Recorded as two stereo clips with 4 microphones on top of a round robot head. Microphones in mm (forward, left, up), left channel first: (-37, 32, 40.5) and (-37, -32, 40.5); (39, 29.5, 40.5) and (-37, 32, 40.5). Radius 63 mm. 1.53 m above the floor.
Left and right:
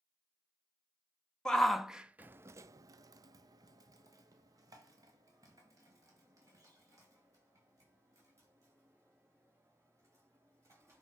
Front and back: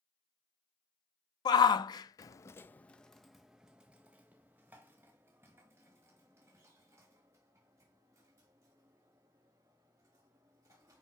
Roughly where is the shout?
Ahead.